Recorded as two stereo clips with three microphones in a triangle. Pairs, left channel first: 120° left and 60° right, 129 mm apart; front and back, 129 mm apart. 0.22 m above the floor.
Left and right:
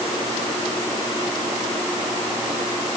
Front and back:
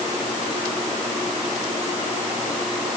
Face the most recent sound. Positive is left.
No sound to turn to.